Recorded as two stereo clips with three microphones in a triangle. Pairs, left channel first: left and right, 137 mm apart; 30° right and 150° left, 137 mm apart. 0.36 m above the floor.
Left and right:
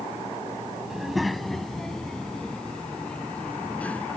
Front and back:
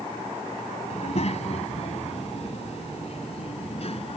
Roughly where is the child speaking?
Ahead.